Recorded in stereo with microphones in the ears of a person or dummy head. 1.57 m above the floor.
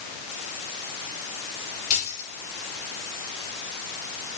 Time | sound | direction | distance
1.9 | keys jangling | 50° left (ahead or behind) | 6 m